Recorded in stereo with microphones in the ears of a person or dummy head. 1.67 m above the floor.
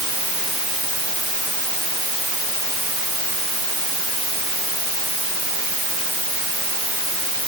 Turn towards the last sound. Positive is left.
No sound to turn to.